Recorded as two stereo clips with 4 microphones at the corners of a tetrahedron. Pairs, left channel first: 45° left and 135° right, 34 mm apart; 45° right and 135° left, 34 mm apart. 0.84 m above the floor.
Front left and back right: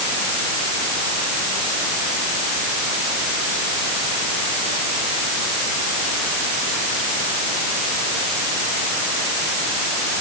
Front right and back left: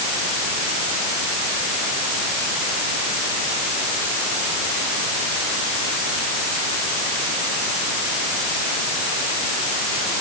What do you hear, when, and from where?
Only background noise.